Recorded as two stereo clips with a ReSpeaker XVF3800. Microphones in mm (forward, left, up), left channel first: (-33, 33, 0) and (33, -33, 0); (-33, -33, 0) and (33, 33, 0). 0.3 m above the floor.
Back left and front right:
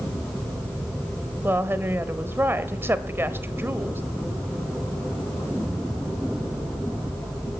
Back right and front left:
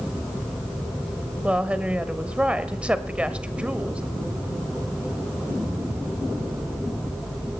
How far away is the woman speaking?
About 1.0 m.